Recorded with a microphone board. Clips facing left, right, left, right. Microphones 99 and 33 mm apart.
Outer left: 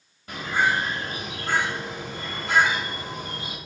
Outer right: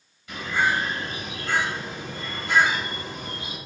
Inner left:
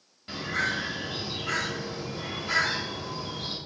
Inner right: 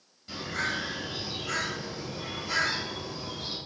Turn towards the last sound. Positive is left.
turn(degrees=40)  # may be behind; listen again after turning